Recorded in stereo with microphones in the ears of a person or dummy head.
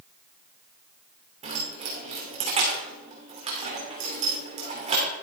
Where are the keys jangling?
35° right (ahead or behind), 2.5 m.